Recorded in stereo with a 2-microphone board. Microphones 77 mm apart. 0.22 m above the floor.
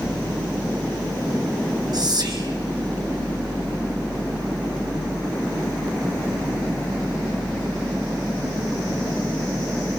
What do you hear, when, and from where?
1.9 s whispering: 60° right (ahead or behind), 4 m